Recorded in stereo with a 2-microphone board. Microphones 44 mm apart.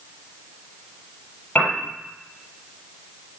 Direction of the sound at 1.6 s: 40° left (ahead or behind).